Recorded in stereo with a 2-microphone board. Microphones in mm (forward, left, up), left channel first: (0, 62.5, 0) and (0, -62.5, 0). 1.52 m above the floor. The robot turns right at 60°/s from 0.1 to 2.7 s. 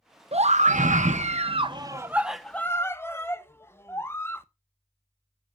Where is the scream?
125° right, 1.0 m; by 4.5 s 20° left, 1.0 m.